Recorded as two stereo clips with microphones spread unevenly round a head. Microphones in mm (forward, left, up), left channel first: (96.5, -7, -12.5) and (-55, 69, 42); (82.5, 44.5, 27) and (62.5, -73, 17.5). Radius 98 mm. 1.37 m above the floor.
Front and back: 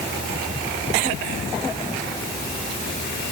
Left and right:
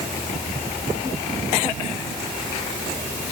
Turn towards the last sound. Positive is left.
No sound to turn to.